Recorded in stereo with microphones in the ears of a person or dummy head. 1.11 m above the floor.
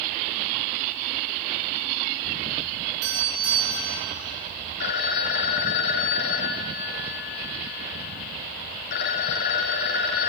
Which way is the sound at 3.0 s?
80° right.